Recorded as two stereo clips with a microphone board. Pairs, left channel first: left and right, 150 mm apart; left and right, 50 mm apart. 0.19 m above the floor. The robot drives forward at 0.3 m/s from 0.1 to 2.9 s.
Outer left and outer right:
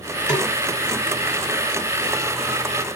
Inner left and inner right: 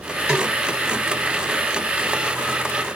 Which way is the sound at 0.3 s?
20° right (ahead or behind).